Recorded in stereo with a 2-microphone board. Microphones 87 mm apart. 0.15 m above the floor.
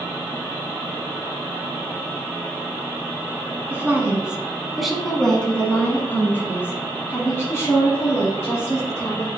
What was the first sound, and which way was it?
A woman speaking, 20° right (ahead or behind).